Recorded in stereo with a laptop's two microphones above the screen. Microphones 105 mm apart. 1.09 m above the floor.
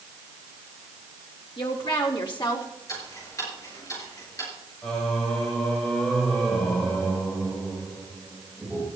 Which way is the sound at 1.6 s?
55° left (ahead or behind).